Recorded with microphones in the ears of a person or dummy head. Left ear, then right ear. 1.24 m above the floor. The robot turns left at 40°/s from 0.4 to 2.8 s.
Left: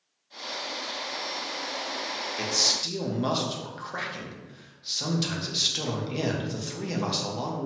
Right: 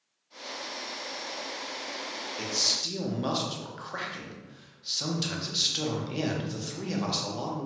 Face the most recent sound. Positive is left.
turn(degrees=0)  # may be behind; listen again after turning